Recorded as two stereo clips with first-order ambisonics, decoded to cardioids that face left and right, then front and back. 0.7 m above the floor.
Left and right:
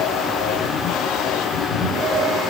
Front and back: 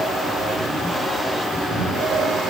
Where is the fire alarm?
I don't hear a fire alarm.